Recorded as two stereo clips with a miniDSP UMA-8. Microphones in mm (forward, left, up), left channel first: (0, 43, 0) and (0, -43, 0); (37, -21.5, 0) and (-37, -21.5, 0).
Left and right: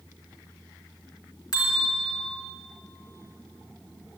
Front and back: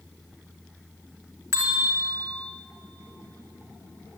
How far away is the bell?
About 2.5 m.